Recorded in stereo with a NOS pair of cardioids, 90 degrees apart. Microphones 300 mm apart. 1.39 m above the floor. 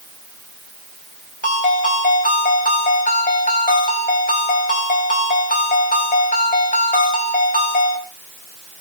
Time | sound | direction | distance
1.4 | a ringtone | 25° left | 3.5 m